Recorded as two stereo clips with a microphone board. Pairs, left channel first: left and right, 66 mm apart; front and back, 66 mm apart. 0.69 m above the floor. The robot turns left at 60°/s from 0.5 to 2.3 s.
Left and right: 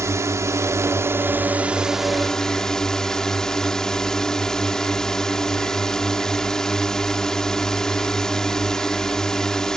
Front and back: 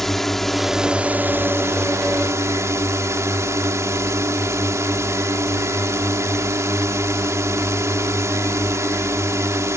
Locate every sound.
0.0 s a drone: 85° right; by 9.8 s 165° left